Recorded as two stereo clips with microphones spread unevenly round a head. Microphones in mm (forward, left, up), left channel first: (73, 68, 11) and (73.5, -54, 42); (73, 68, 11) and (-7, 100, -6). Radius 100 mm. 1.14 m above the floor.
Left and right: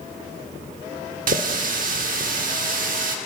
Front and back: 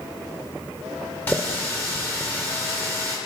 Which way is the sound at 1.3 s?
100° right.